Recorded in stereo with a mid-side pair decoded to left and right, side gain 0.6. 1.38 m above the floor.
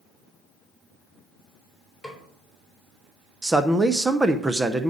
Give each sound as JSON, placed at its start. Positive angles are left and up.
{"t": 2.0, "sound": "a snare drum", "azimuth_deg": 5, "distance_m": 3.5}
{"t": 3.4, "sound": "a man speaking", "azimuth_deg": -15, "distance_m": 0.7}